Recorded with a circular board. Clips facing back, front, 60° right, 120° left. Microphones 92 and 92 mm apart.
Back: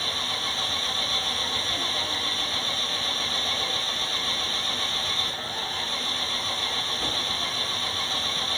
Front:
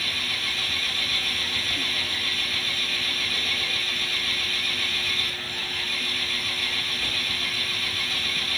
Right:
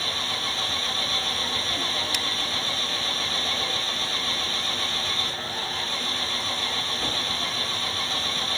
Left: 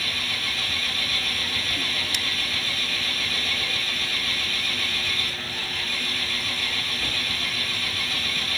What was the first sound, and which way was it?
An engine running, 120° right.